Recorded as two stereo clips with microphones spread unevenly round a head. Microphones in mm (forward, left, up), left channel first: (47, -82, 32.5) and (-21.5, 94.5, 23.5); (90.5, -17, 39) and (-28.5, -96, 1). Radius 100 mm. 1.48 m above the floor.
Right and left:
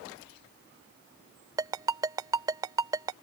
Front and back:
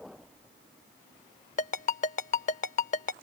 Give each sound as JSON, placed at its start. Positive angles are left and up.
{"t": 1.6, "sound": "a ringtone", "azimuth_deg": 40}